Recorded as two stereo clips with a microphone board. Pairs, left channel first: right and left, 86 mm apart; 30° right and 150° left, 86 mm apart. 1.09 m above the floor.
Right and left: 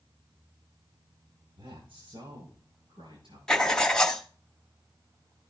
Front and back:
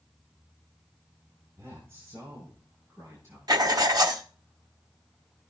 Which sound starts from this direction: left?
A man speaking, at 1.6 s.